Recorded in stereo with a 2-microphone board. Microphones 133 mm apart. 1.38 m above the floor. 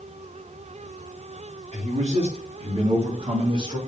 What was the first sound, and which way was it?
A man speaking, 55° right (ahead or behind).